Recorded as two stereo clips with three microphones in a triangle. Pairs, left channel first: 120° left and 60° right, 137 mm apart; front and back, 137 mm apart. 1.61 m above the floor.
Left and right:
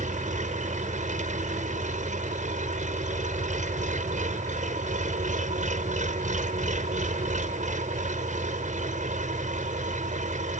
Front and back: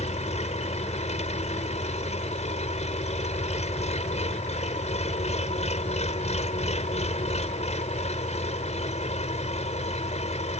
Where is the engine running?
35° right.